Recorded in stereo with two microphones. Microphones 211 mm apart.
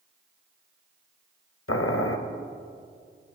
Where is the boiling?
80° left, 0.7 m.